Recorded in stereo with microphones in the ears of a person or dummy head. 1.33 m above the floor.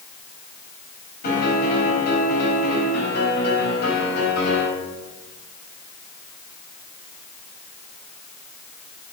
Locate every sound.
1.2 s a piano: 60° left (ahead or behind), 3.5 m